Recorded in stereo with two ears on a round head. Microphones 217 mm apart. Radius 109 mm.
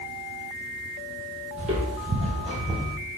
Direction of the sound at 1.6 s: 25° right (ahead or behind).